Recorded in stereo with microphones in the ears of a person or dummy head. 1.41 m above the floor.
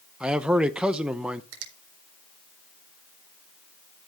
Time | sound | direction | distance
0.2 | a man speaking | centre (ahead or behind) | 0.8 m
1.5 | a finger snap | 65° right (ahead or behind) | 4 m